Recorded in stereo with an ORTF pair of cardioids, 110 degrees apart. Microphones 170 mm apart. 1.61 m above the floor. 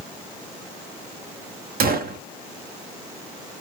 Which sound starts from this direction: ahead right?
A gunshot, at 1.8 s.